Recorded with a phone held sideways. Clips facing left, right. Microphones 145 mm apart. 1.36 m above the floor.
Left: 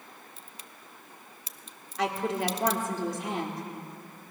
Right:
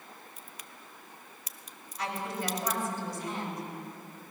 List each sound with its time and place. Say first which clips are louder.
0.4 s a crack: even; 25° left (ahead or behind), 0.7 m
2.0 s a woman speaking: left 6 dB; 85° left, 3.5 m